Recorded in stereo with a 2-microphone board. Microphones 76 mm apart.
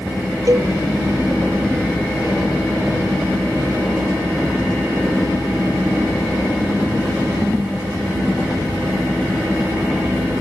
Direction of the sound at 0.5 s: 45° right (ahead or behind).